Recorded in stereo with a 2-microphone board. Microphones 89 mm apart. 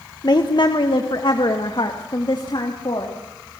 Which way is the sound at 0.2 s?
50° left (ahead or behind).